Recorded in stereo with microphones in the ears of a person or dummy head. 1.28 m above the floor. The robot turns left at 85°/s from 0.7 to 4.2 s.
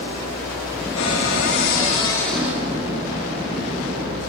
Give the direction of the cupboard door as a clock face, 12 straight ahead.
8 o'clock.